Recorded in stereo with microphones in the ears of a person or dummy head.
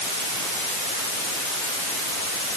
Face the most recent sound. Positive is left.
No sound to turn to.